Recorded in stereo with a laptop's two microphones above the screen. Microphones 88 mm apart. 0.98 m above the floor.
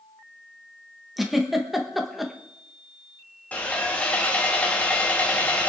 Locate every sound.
1.2 s a giggle: centre (ahead or behind), 1.2 m
3.5 s sawing: 20° left (ahead or behind), 1.8 m